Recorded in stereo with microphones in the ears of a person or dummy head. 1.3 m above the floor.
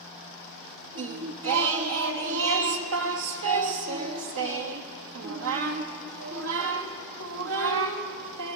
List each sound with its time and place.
0.9 s singing: 70° right (ahead or behind), 1.1 m